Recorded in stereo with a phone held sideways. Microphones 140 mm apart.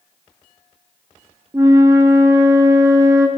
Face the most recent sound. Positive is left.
turn(degrees=-20)  # may be behind; listen again after turning